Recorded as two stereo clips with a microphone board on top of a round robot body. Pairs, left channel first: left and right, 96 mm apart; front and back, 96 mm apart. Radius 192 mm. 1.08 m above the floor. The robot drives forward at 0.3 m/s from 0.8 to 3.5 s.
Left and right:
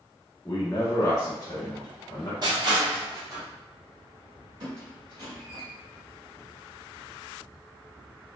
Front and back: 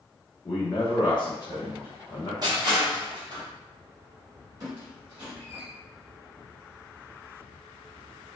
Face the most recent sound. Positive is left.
turn(degrees=-130)